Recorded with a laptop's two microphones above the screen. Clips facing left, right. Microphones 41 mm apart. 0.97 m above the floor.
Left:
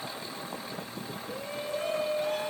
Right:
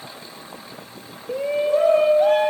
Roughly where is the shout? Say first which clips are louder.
Right 16 dB; right.